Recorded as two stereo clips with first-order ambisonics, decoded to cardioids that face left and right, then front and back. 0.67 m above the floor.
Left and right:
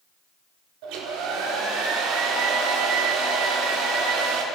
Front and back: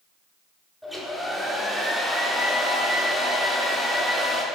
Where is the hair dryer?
90° right, 1.4 m.